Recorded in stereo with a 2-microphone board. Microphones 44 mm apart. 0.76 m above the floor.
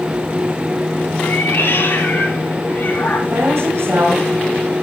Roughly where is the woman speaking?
Right.